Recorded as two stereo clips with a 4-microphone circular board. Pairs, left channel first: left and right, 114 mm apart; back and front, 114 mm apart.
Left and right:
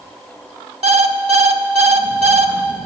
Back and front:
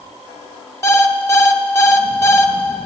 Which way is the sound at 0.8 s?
115° right.